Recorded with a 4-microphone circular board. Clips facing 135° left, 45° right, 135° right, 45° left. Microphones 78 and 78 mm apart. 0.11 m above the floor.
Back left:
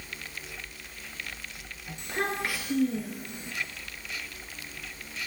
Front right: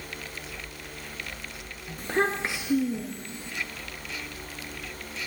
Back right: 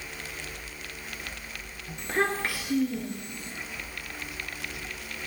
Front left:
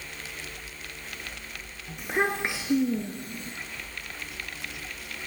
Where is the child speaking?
40° right, 1.0 m; by 3.5 s 70° left, 1.1 m.